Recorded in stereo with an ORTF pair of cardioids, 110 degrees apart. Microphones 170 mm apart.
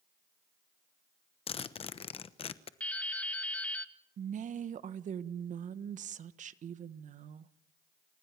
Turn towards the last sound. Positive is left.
turn(degrees=-50)